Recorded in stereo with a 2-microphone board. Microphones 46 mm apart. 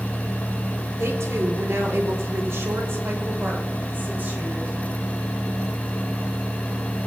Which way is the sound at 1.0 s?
85° right.